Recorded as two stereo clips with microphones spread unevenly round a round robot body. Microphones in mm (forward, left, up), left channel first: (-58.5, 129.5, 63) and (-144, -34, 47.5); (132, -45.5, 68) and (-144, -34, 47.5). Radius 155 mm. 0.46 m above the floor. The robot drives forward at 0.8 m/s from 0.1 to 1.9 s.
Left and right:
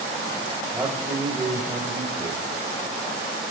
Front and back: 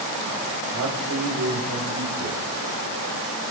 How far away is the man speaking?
About 2.5 m.